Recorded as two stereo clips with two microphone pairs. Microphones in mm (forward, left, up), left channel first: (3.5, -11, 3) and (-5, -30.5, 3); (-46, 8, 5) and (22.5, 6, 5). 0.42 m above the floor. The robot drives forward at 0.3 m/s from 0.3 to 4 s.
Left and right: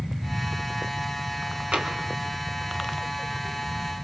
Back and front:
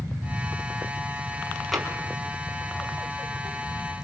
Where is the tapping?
90° right, 4.5 m.